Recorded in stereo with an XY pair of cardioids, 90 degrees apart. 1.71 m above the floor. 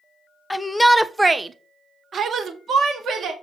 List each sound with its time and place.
0.5 s a shout: 15° left, 0.8 m; by 3.3 s 70° right, 1.6 m